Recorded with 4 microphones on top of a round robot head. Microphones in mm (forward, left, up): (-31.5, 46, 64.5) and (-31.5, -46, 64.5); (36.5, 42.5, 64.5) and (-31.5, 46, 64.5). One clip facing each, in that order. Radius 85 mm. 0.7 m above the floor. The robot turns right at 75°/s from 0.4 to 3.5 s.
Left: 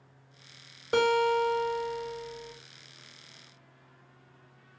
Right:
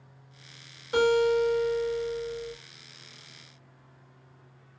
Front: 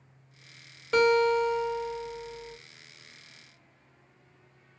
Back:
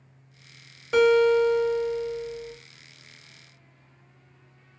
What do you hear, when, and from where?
0.9 s a guitar: 90° left, 1.8 m; by 2.5 s 145° right, 1.8 m